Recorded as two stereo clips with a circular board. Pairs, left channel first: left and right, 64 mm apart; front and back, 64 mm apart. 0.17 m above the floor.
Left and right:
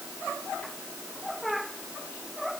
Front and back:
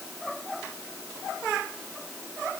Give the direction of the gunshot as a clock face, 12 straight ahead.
No gunshot in this recording.